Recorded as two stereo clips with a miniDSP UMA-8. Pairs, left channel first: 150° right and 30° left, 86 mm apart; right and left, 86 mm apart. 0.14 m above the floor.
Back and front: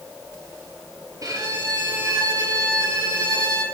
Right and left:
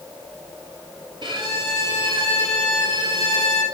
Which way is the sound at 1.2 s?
75° left.